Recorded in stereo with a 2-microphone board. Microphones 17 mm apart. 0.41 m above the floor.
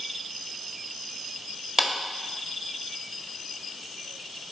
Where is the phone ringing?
I don't hear a phone ringing.